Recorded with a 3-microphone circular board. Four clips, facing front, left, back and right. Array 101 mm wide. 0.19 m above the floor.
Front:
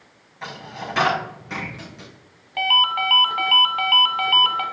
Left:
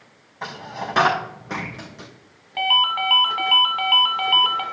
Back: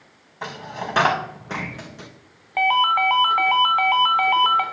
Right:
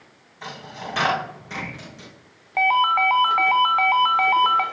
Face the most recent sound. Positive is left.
turn(degrees=-130)